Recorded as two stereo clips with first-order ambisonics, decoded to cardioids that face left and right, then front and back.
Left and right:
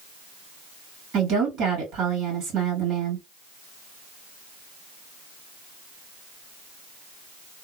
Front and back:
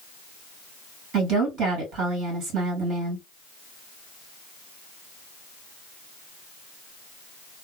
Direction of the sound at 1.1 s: 140° right.